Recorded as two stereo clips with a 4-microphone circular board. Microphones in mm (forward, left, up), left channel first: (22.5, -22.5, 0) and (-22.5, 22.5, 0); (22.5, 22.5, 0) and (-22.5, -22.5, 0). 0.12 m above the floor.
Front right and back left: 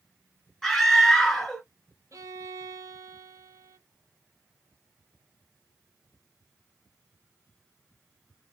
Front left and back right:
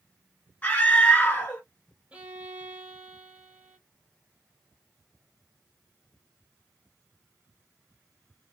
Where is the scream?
35° left, 1.2 m.